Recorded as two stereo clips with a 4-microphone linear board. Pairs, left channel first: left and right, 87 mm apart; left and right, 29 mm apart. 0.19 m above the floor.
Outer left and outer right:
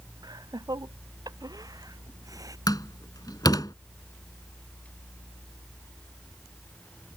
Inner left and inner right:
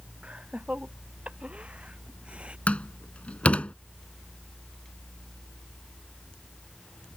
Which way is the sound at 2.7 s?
45° left (ahead or behind).